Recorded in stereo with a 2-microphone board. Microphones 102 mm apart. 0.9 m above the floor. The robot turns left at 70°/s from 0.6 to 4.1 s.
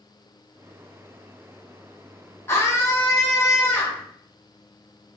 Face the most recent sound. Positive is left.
turn(degrees=20)